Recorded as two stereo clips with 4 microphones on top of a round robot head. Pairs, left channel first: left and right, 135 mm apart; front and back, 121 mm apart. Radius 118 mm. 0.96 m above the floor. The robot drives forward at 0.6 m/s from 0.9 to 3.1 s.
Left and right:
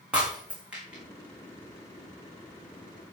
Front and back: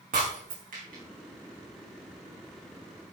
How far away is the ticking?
I don't hear ticking.